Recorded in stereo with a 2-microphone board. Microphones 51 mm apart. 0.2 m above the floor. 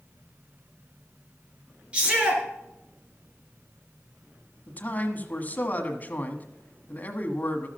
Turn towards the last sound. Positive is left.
turn(degrees=35)  # may be behind; listen again after turning